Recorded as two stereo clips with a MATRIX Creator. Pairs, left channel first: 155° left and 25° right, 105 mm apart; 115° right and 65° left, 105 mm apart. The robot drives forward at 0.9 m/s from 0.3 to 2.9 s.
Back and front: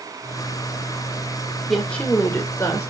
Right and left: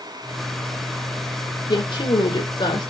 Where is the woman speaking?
115° right, 1.7 m; by 2.9 s 145° right, 2.5 m.